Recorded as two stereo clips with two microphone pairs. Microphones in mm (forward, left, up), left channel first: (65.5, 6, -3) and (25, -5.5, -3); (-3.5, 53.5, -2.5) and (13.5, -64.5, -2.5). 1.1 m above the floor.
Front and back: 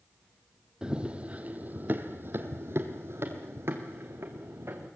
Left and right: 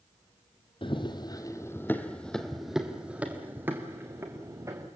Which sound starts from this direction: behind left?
Running footsteps, at 0.8 s.